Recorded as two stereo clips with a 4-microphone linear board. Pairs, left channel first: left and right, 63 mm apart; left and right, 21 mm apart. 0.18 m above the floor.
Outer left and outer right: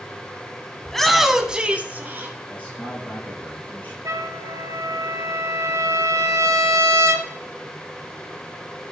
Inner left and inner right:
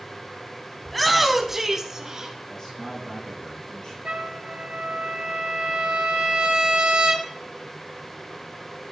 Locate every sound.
0.8 s a shout: 10° left (ahead or behind), 1.0 m; by 2.4 s 35° right (ahead or behind), 1.2 m
2.5 s a man speaking: 30° left (ahead or behind), 4.5 m
4.0 s a trumpet: 60° right (ahead or behind), 1.3 m